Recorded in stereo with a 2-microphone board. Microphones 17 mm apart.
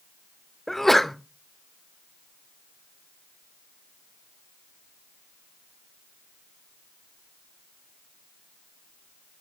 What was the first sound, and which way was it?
A sneeze, 15° left (ahead or behind).